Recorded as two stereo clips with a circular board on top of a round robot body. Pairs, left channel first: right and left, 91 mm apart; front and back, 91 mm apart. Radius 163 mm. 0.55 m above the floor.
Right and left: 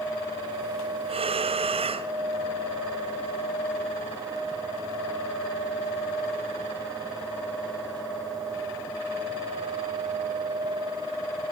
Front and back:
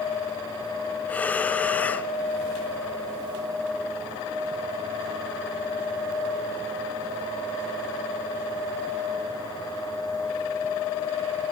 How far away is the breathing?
About 1.2 m.